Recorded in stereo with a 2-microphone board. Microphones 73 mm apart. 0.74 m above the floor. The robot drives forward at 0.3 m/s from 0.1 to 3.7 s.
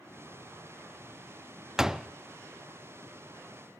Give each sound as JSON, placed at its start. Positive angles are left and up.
{"t": 1.8, "sound": "a door slam", "side_deg": -10, "distance_m": 0.6}